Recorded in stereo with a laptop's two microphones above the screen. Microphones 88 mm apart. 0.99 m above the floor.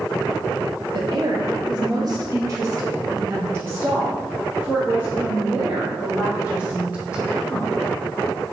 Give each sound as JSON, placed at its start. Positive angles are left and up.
{"t": 0.9, "sound": "a woman speaking", "side_deg": -50, "distance_m": 1.1}